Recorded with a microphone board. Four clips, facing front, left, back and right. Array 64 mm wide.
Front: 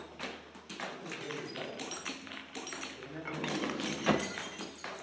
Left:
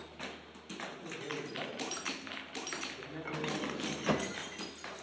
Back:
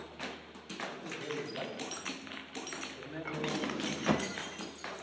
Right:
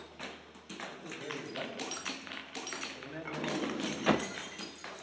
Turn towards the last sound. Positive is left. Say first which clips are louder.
# right 3 dB, even
turn(degrees=-70)